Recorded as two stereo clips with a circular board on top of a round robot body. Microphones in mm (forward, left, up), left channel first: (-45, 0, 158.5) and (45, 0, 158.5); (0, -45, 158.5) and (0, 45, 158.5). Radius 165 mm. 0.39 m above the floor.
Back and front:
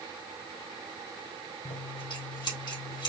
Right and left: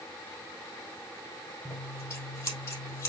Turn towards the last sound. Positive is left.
turn(degrees=-145)